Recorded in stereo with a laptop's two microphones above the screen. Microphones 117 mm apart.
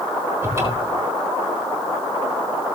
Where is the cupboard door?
25° right (ahead or behind), 6.5 m.